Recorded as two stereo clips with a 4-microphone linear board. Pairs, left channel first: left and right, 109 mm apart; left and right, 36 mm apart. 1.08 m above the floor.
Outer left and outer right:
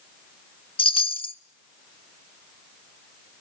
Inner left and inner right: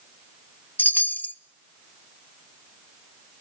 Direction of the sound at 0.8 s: 55° left (ahead or behind).